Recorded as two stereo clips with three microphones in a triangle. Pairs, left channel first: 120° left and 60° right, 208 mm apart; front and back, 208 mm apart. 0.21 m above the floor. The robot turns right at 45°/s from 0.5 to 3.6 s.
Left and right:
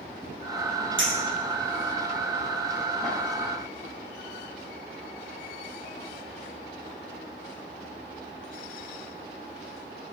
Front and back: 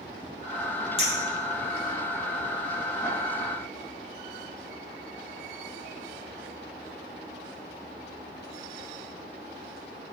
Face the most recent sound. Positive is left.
turn(degrees=60)